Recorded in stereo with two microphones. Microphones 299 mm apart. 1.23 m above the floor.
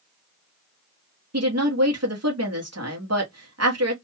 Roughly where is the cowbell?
I don't hear a cowbell.